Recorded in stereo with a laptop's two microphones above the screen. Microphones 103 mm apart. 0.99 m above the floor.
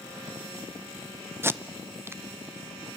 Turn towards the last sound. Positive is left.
turn(degrees=-25)  # may be behind; listen again after turning